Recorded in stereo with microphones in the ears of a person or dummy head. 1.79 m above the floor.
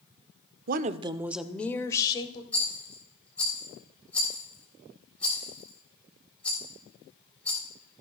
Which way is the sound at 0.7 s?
50° right (ahead or behind).